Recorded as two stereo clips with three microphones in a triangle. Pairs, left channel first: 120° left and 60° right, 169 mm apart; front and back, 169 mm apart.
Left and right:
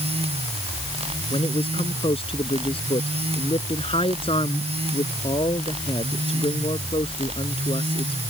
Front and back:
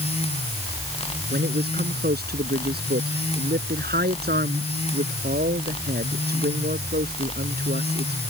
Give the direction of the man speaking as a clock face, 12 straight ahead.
6 o'clock.